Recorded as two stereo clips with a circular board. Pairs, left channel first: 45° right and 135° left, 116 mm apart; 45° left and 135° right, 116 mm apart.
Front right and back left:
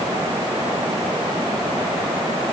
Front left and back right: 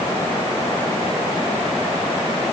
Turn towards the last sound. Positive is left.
No sound to turn to.